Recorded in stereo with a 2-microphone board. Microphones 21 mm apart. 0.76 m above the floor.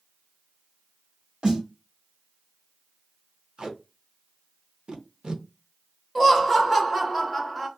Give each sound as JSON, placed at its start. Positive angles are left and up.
{"t": 1.4, "sound": "a snare drum", "side_deg": -65, "distance_m": 1.7}
{"t": 3.6, "sound": "tape being pulled", "side_deg": -60, "distance_m": 0.6}
{"t": 6.2, "sound": "laughter", "side_deg": -15, "distance_m": 1.5}